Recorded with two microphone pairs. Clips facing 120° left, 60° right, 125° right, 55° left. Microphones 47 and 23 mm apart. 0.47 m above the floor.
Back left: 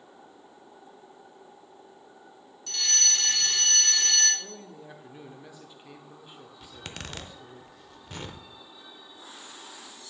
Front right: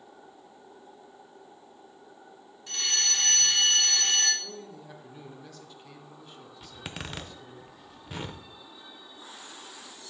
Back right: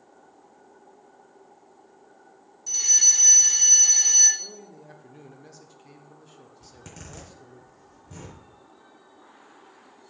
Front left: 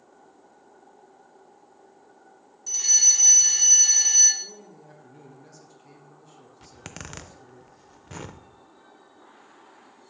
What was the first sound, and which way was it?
A fire alarm, 25° right.